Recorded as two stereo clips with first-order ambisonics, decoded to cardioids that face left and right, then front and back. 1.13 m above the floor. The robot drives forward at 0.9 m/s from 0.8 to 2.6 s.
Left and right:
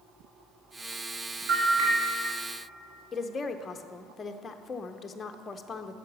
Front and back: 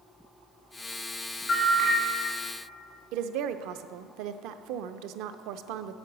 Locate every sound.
1.5 s a bell: 70° right, 2.5 m; by 1.9 s 80° right, 2 m
3.1 s a woman speaking: 160° left, 0.5 m